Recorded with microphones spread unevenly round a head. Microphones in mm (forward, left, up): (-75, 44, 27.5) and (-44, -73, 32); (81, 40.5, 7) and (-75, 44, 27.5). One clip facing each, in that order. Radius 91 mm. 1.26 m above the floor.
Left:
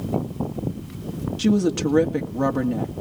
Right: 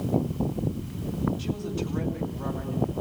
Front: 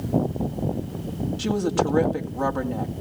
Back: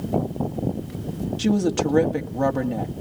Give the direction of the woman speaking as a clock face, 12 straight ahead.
8 o'clock.